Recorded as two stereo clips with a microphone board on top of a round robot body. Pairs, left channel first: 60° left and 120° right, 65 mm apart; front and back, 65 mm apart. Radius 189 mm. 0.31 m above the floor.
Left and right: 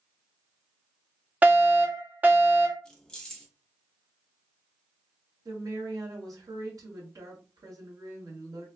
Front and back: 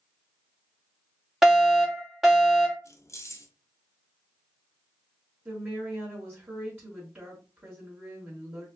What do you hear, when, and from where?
1.4 s a fire alarm: 100° right, 1.9 m
2.9 s keys jangling: 15° right, 1.1 m
5.5 s a woman speaking: 120° right, 1.9 m